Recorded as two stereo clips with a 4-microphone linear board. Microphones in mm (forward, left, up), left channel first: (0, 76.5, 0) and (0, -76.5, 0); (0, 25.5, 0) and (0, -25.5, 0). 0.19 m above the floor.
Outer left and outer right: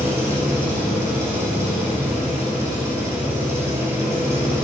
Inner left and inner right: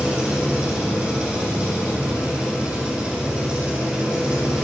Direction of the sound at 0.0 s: 15° right (ahead or behind).